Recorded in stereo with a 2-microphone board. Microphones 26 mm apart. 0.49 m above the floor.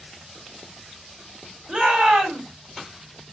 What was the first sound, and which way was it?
A shout, 55° right (ahead or behind).